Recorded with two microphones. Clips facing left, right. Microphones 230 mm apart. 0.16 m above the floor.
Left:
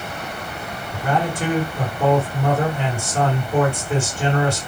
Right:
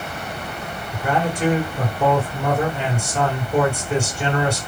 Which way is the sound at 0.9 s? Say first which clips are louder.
Even; 45° left (ahead or behind).